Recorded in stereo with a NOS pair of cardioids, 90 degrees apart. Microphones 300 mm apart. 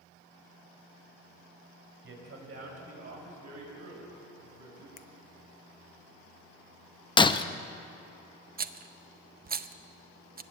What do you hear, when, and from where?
2.0 s a man speaking: 45° right, 5 m; by 4.9 s 80° right, 6.5 m
5.0 s a finger snap: 40° left, 0.7 m
7.2 s breaking glass: 15° left, 0.6 m
8.6 s a rattle: 30° right, 0.7 m